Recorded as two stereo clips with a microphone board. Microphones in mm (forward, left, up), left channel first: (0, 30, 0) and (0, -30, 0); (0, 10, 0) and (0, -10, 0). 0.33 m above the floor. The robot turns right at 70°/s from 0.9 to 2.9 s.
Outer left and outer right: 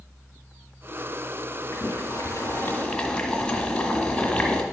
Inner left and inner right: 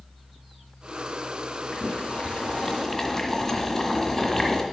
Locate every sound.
1.7 s boiling: 75° left, 1.7 m; by 4.6 s 160° left, 1.7 m